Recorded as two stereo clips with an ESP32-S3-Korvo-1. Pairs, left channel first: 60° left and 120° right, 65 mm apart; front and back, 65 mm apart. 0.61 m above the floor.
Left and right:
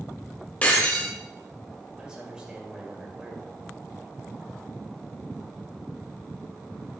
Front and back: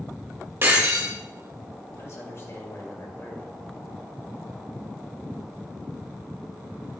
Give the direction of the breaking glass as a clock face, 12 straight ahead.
8 o'clock.